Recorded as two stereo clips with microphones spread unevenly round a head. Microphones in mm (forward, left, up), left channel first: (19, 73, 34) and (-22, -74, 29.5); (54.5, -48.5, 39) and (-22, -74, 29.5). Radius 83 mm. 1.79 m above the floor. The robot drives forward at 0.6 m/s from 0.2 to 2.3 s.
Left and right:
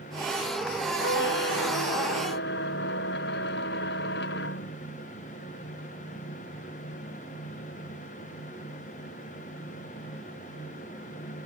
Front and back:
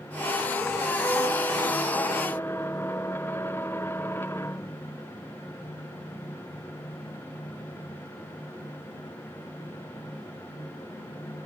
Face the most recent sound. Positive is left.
turn(degrees=95)